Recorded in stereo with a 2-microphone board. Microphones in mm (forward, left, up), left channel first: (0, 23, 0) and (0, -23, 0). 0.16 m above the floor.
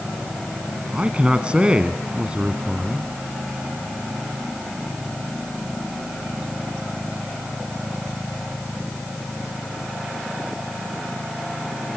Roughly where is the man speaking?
Right.